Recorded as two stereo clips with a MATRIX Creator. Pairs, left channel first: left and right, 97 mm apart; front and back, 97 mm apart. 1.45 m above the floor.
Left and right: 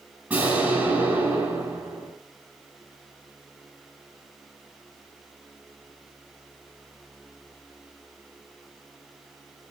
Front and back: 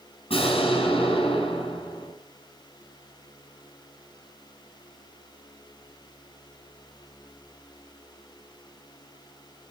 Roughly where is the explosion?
Ahead.